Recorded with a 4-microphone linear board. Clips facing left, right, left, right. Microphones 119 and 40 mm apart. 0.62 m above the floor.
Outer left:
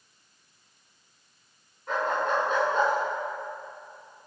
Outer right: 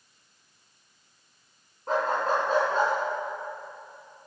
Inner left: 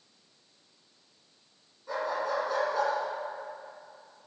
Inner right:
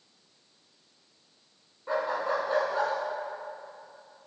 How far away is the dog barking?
About 3 m.